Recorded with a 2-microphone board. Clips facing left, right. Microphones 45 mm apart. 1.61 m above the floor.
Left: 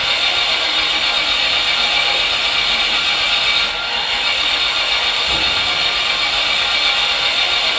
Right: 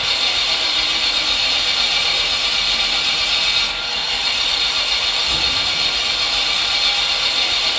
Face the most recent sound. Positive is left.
turn(degrees=20)  # may be behind; listen again after turning